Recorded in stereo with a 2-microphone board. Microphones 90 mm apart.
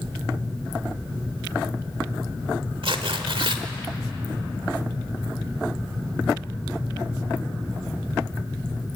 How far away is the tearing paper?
About 1.4 m.